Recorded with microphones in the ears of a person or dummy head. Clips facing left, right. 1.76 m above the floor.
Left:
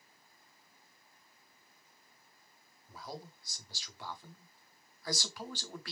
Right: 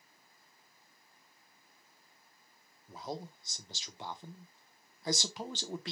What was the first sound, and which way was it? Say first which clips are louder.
A man speaking: right 5 dB; 20° right (ahead or behind).